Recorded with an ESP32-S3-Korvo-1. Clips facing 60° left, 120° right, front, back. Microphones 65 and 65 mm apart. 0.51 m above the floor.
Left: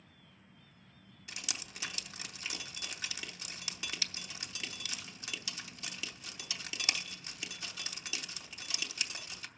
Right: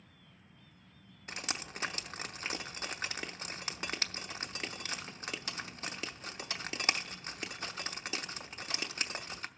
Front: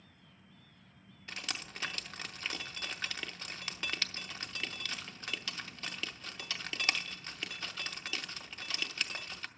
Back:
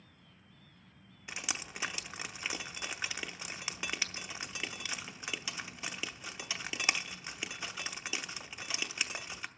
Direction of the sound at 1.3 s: 110° right.